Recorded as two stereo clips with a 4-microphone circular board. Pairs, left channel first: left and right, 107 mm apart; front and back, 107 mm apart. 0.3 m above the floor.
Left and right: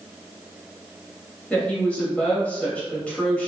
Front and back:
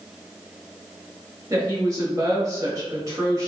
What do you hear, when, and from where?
1.5 s a woman speaking: 160° left, 1.1 m